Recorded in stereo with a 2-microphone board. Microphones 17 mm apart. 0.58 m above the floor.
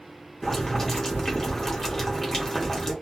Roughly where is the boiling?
Left.